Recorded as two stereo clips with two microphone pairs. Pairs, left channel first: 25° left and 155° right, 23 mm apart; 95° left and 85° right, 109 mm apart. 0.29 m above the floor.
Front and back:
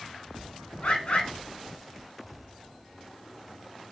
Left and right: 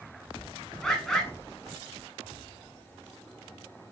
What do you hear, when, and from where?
0.8 s a bird: 10° left, 1.0 m